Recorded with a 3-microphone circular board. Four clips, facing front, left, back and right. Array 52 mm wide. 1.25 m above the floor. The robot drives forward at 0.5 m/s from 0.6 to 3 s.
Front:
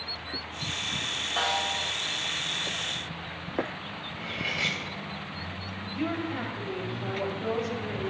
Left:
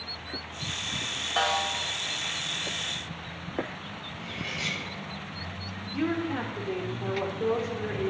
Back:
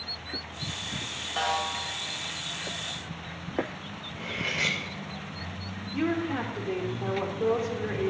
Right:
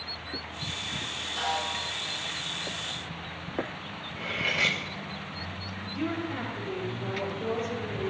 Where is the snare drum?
90° left, 3.5 m.